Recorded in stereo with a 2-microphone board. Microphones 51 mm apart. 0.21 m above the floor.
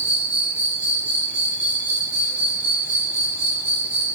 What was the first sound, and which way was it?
An insect, 25° right (ahead or behind).